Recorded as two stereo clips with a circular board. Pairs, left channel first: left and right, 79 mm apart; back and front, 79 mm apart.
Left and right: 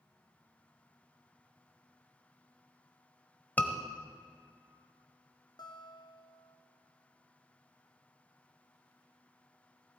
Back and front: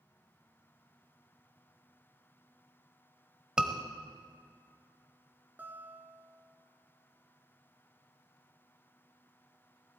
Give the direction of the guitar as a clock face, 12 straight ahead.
10 o'clock.